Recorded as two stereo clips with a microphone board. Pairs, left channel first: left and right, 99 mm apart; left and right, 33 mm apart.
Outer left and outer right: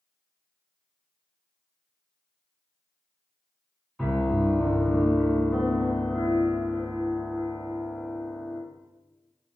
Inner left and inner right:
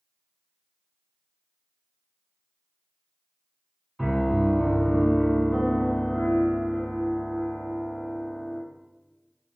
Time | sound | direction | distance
4.0 | a piano | 5° left (ahead or behind) | 0.8 m